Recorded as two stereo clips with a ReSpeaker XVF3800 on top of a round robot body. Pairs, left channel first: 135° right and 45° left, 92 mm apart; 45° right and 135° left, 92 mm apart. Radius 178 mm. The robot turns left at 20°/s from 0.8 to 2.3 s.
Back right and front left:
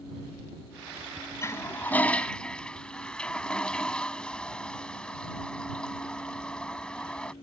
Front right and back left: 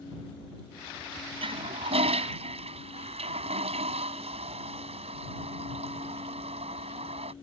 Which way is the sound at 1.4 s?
160° left.